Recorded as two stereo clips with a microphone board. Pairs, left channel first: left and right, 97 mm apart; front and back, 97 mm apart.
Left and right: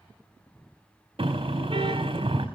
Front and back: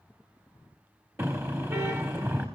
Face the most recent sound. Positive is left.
turn(degrees=-115)